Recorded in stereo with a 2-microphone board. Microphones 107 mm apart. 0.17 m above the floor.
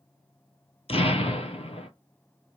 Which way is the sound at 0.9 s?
70° left (ahead or behind).